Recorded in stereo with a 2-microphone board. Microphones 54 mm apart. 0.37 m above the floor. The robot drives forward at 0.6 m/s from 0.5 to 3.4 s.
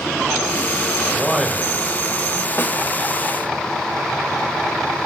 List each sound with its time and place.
1.1 s a man speaking: 5° right (ahead or behind), 1.1 m
2.6 s a snare drum: 45° left (ahead or behind), 1.1 m